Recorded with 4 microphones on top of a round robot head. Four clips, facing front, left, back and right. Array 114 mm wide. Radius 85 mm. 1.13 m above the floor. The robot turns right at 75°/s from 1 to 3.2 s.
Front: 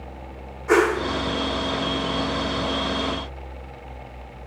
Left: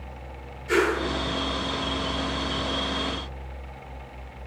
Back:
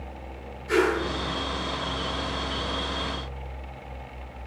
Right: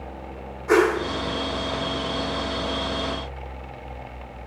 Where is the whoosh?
40° right, 1.7 m.